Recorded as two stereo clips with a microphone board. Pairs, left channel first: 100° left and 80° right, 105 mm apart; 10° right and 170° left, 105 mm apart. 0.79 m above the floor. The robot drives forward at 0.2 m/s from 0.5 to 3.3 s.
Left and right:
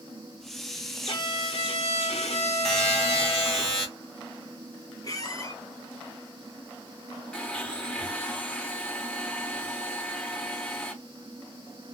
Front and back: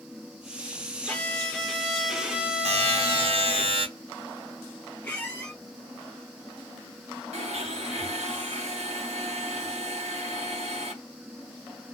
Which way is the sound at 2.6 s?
175° right.